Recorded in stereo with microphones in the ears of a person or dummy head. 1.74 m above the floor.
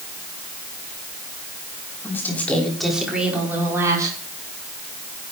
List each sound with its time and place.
2.0 s a woman speaking: 15° left (ahead or behind), 5 m; by 4.2 s 25° right (ahead or behind), 5.5 m